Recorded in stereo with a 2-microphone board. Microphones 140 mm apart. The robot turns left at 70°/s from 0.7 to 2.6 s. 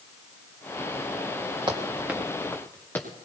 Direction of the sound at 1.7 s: 35° right (ahead or behind).